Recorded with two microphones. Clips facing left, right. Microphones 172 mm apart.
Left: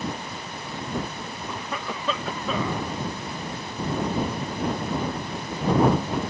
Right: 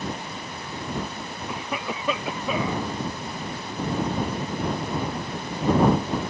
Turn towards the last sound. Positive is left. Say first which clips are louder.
# right 2 dB
turn(degrees=-15)  # may be behind; listen again after turning